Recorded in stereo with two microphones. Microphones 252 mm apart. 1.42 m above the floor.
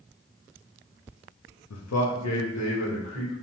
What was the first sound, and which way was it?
A man speaking, 75° left (ahead or behind).